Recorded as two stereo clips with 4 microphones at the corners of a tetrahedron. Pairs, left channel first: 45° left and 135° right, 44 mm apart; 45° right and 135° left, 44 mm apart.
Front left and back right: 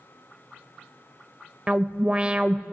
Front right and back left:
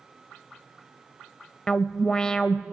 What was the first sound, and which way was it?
An alarm, 95° right.